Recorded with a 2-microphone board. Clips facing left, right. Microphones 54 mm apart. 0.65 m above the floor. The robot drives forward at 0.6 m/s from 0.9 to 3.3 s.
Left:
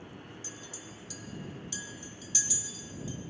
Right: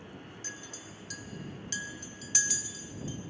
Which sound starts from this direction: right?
A clink, at 0.4 s.